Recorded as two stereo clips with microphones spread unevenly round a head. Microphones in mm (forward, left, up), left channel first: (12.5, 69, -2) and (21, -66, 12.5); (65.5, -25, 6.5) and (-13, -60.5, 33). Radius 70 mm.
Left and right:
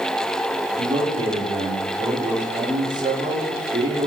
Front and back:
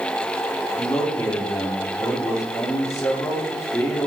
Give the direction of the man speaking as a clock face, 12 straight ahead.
1 o'clock.